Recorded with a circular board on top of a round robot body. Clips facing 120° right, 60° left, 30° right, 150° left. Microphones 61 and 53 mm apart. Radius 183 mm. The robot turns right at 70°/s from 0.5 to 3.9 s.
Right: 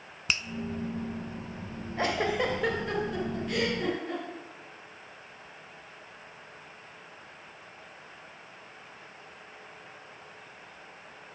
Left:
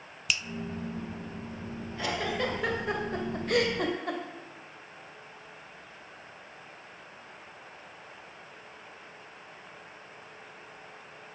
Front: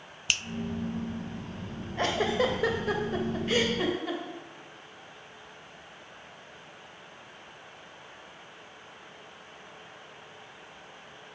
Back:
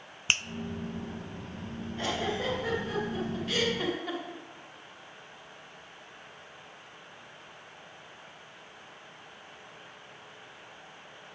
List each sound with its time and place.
0.3 s a finger snap: 160° right, 0.5 m
2.0 s a giggle: 75° right, 1.7 m; by 4.2 s 60° left, 1.7 m